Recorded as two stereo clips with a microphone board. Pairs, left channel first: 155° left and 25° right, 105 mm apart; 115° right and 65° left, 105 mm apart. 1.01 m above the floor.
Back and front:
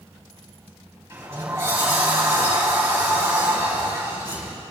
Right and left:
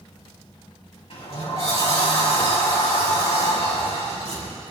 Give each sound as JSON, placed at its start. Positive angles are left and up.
{"t": 1.1, "sound": "a sliding door", "azimuth_deg": -85, "distance_m": 5.5}